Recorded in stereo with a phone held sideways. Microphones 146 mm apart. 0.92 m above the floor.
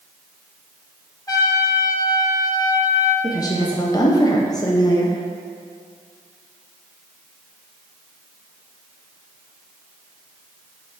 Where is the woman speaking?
25° left (ahead or behind), 0.8 m.